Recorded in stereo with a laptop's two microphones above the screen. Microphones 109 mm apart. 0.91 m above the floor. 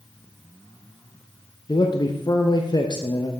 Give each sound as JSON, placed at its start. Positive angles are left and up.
{"t": 1.7, "sound": "a man speaking", "side_deg": 40, "distance_m": 0.7}